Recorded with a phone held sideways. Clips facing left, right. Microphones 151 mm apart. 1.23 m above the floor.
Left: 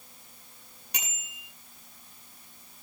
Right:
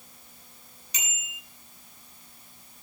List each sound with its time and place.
0.9 s a bicycle bell: 60° left (ahead or behind), 9 m